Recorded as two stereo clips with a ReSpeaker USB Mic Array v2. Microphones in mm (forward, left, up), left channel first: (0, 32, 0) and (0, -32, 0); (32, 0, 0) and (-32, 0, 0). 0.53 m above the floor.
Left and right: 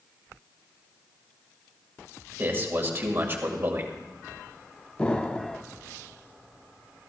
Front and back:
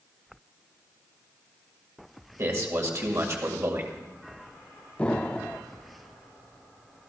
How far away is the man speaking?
About 2 m.